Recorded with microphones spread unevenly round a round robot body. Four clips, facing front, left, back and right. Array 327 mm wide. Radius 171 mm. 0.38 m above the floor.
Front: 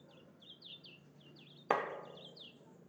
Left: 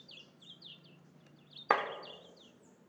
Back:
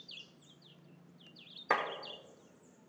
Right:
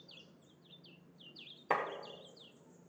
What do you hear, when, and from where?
1.7 s a clap: 75° left, 1.2 m